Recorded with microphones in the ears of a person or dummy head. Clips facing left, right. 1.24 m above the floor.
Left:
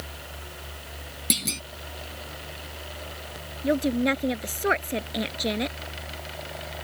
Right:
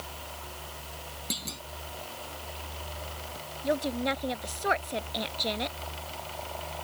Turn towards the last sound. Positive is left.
turn(degrees=30)  # may be behind; listen again after turning